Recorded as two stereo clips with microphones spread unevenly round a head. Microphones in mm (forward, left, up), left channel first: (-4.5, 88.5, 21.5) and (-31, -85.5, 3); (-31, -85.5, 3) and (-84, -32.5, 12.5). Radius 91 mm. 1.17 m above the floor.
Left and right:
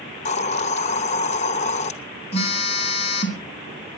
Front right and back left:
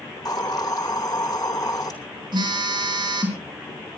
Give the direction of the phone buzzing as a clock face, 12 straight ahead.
7 o'clock.